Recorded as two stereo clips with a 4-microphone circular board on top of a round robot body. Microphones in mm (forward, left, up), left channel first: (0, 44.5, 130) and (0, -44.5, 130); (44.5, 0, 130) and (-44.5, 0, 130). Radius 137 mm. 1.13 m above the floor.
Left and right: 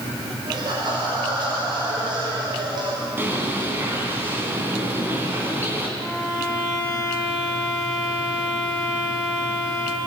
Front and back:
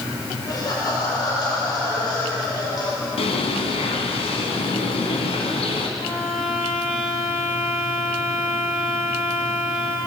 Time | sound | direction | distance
0.5 | laughter | 50° right | 6.5 m
3.2 | a bird | 20° right | 2.5 m
6.0 | a violin | 5° right | 6 m